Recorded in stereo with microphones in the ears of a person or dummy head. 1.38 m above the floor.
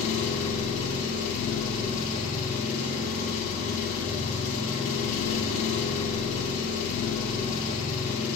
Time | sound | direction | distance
0.0 | an engine running | 40° left (ahead or behind) | 2.5 m